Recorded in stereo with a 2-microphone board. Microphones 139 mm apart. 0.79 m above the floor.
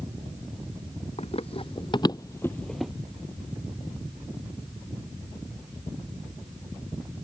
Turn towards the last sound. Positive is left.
turn(degrees=-5)  # may be behind; listen again after turning